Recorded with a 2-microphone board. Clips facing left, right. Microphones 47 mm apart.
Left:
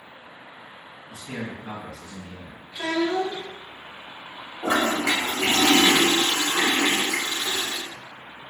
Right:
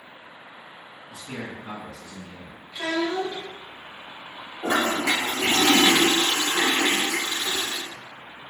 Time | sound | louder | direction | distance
1.1 | a man speaking | left 2 dB | 35° left (ahead or behind) | 1.9 m
2.7 | a child speaking | left 2 dB | 5° left (ahead or behind) | 1.5 m
4.6 | a toilet flushing | left 1 dB | 35° left (ahead or behind) | 1.0 m